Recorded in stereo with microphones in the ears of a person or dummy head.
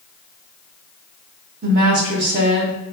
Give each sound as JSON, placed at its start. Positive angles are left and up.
{"t": 1.6, "sound": "a woman speaking", "side_deg": -50, "distance_m": 0.9}